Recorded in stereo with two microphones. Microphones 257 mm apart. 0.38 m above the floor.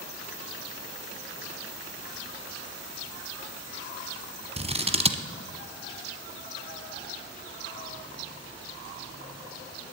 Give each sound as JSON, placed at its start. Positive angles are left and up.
{"t": 4.6, "sound": "scissors", "side_deg": -25, "distance_m": 1.0}